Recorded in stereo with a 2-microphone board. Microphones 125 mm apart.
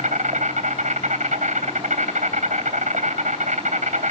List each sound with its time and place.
0.0 s an insect: 80° right, 3 m